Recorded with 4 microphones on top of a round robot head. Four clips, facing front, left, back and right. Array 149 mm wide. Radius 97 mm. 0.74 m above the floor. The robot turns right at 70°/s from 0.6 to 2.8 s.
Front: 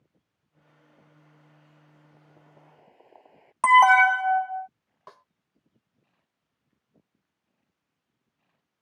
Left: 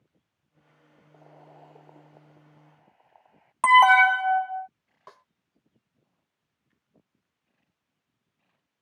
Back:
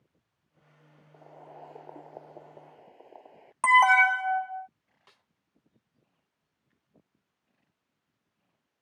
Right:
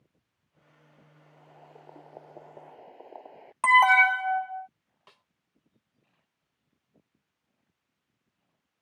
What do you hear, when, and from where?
1.1 s boiling: 140° left; by 3.5 s 105° right
3.6 s an alarm: 45° left
5.1 s a snare drum: 35° left